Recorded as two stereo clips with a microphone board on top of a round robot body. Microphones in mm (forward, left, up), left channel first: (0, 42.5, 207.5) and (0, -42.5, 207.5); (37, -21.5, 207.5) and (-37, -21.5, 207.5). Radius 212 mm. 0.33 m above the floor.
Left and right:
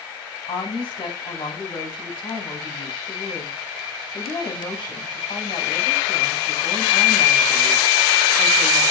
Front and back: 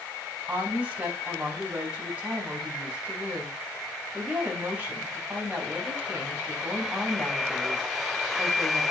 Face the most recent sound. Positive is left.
turn(degrees=110)